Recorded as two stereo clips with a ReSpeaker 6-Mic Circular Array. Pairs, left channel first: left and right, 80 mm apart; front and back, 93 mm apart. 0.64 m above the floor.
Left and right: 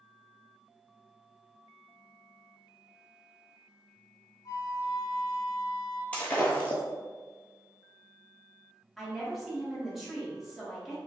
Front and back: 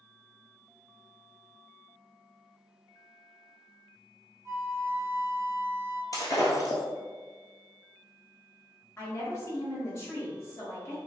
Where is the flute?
125° left, 0.5 m.